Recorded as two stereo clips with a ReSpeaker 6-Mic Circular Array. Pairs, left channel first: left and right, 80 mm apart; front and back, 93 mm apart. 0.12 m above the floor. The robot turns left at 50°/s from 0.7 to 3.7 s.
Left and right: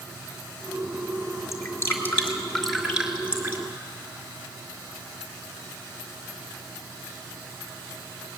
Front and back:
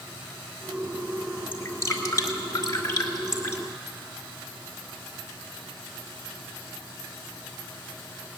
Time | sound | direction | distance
1.5 | dripping | 60° left | 2.0 m